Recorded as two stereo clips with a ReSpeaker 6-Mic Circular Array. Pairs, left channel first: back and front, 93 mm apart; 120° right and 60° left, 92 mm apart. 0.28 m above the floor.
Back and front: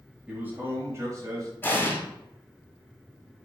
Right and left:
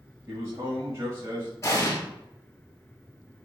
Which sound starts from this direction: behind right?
An explosion, at 1.6 s.